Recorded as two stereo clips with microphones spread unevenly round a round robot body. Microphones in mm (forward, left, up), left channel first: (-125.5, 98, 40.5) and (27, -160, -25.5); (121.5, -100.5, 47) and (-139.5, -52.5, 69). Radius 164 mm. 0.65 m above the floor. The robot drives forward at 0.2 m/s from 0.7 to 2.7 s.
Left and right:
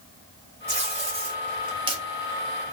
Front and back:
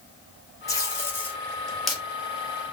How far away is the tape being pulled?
About 1.2 m.